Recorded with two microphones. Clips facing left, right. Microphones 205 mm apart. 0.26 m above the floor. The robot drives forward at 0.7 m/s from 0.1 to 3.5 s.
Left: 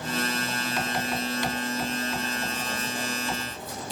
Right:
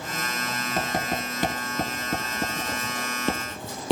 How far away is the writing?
About 4.5 m.